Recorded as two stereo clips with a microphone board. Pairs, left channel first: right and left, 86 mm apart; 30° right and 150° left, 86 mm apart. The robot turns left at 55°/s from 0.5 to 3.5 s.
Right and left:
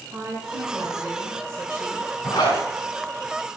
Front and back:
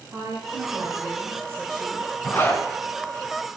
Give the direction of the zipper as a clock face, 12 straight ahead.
2 o'clock.